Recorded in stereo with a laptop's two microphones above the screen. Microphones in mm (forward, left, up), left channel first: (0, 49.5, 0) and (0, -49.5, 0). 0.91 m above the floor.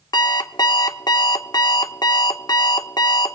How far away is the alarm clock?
About 0.8 m.